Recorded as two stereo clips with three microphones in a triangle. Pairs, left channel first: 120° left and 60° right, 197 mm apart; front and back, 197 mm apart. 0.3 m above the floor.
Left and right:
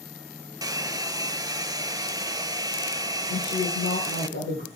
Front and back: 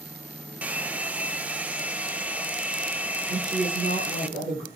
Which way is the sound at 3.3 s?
135° left.